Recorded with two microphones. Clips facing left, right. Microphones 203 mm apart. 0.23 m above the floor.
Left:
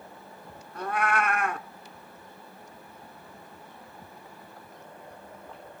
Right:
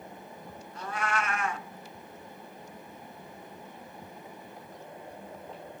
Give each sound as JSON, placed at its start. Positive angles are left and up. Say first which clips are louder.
{"t": 0.8, "sound": "a cat meowing", "louder": "left 5 dB", "side_deg": 55, "distance_m": 0.7}